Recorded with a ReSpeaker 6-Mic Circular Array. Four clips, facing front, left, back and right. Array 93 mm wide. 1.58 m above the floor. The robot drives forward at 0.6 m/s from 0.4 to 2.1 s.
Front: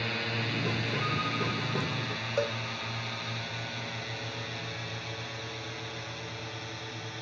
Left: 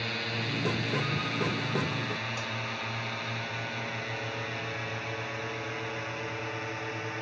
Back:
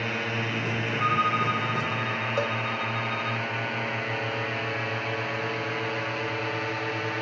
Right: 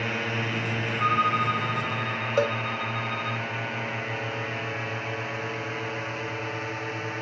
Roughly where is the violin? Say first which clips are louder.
Right 8 dB, back 12 dB; behind right.